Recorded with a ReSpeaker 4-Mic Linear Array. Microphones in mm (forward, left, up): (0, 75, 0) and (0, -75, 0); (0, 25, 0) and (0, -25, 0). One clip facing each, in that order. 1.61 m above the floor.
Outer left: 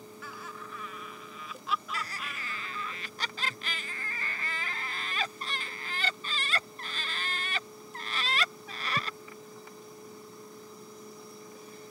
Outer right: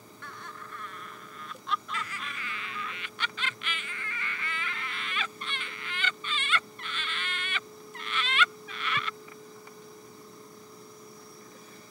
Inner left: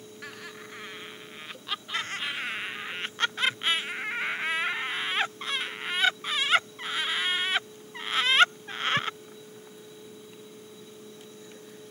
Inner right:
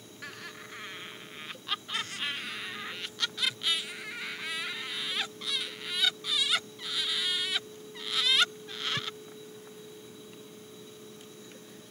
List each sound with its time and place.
0.2 s laughter: 5° left (ahead or behind)
1.9 s laughter: 40° left (ahead or behind)